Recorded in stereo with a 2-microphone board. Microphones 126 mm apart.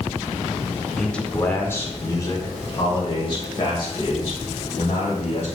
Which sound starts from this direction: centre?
A man speaking, at 1.0 s.